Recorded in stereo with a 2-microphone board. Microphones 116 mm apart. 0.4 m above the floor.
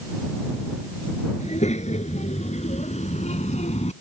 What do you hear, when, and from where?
1.4 s a child speaking: 75° left (ahead or behind)